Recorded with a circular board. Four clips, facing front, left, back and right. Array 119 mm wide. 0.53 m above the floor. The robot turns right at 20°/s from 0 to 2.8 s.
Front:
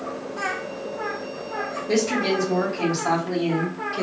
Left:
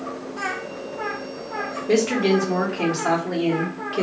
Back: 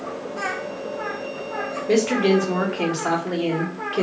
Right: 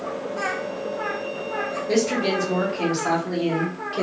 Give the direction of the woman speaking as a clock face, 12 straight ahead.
7 o'clock.